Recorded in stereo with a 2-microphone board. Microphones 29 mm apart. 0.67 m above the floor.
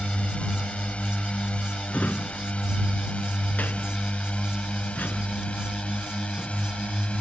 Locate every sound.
0.0 s a drone: 45° left (ahead or behind); by 7.2 s 50° left (ahead or behind)
1.9 s a drawer: 80° left